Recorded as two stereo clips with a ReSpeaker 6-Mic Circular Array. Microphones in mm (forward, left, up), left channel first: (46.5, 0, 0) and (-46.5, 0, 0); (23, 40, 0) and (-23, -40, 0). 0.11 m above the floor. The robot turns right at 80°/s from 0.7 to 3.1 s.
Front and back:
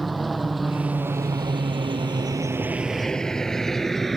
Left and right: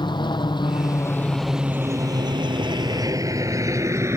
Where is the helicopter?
90° left; by 4.2 s 90° right.